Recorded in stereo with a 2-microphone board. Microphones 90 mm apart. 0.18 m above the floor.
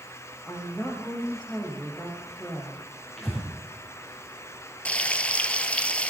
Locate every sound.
0.5 s a woman speaking: 5° right (ahead or behind), 6.5 m
3.2 s breathing: centre (ahead or behind), 7 m
4.8 s frying: 15° left (ahead or behind), 1.2 m